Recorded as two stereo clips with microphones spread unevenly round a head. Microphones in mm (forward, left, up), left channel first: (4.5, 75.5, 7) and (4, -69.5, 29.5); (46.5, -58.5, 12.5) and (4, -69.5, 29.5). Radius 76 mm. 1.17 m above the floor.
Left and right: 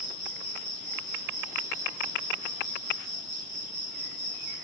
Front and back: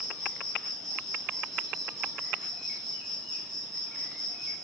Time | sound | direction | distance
0.0 | an insect | 50° right | 2 m